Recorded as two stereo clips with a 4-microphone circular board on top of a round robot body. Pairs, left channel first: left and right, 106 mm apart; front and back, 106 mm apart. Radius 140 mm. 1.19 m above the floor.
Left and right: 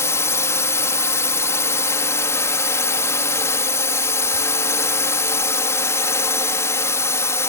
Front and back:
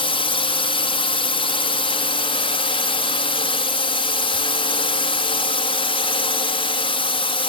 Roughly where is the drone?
Ahead left.